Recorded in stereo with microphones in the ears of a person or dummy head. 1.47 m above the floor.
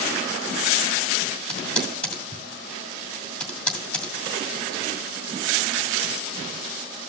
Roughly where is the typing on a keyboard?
Centre.